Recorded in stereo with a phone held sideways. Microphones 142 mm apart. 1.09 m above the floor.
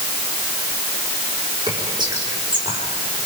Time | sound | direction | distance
1.7 | whispering | 30° right (ahead or behind) | 5 m